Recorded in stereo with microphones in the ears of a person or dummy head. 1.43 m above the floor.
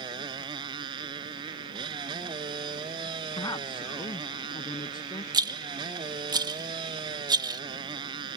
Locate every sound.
0.0 s a motorcycle: 25° right (ahead or behind)
3.4 s a man speaking: 20° left (ahead or behind)
5.3 s a rattle: 25° right (ahead or behind)